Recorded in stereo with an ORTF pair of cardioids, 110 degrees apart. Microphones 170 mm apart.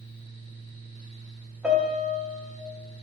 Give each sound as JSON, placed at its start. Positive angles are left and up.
{"t": 0.0, "sound": "a fan", "azimuth_deg": -45, "distance_m": 2.0}
{"t": 1.6, "sound": "a piano", "azimuth_deg": -5, "distance_m": 1.7}